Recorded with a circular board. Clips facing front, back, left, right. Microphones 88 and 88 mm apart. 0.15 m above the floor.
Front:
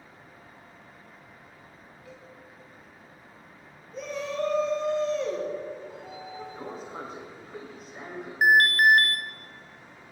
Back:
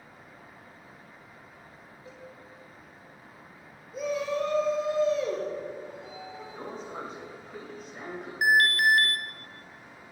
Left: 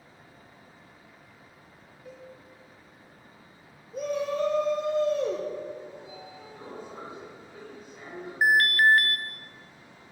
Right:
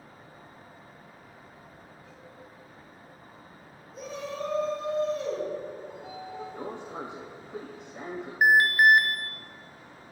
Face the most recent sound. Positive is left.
turn(degrees=-25)